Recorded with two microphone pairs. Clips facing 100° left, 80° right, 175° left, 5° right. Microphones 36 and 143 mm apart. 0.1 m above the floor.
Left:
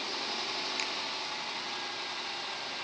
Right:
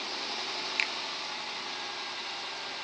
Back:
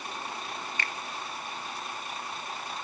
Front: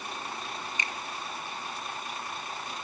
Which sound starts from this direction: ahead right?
A finger snap, at 0.8 s.